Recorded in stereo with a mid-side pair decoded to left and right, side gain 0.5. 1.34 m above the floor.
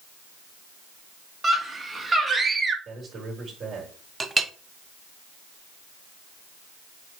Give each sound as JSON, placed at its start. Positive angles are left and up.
{"t": 1.4, "sound": "a scream", "azimuth_deg": -20, "distance_m": 2.5}
{"t": 2.9, "sound": "a man speaking", "azimuth_deg": -40, "distance_m": 4.5}
{"t": 4.2, "sound": "a clink", "azimuth_deg": -20, "distance_m": 1.0}